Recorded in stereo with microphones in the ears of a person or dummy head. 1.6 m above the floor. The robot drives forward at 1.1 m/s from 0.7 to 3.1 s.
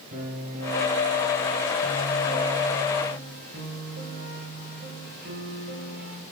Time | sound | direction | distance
0.1 | a piano | 40° right (ahead or behind) | 7 m